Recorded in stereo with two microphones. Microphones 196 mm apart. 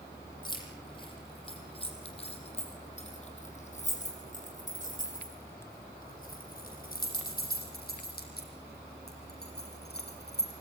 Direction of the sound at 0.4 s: 25° left (ahead or behind).